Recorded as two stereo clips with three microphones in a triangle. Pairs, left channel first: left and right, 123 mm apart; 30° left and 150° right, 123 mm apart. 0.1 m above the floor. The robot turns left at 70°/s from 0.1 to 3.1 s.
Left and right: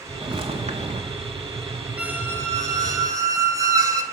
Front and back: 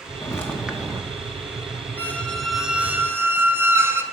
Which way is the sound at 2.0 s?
25° right.